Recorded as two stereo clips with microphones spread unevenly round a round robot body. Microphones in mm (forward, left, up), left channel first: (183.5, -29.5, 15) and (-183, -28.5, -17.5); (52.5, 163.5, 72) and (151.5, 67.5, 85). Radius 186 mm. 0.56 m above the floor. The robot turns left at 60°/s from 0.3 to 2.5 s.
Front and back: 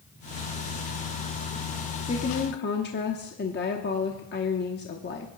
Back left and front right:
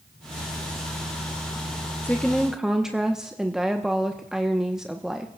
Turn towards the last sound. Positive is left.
turn(degrees=50)